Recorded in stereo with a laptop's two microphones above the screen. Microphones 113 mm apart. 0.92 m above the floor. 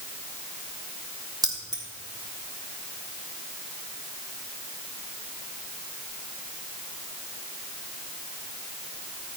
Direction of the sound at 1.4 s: 35° right (ahead or behind).